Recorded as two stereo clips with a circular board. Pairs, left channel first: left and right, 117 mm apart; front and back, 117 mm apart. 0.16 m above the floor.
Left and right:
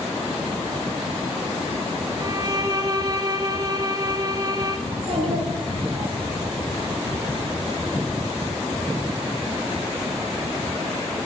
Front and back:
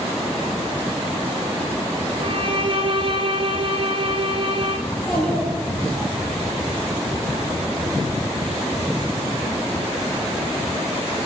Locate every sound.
2.2 s a violin: 140° right, 0.6 m
4.9 s a child speaking: 80° right, 2.5 m